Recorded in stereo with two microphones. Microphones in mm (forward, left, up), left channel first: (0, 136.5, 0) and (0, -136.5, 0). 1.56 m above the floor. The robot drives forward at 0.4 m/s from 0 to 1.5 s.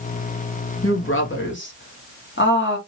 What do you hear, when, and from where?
0.8 s a woman speaking: 55° left (ahead or behind), 1.0 m; by 2.8 s 45° left (ahead or behind), 1.2 m